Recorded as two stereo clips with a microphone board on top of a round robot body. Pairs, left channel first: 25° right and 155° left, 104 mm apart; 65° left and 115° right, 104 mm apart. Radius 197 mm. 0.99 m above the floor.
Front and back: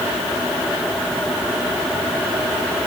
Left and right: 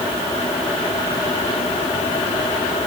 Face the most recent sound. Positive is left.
No sound to turn to.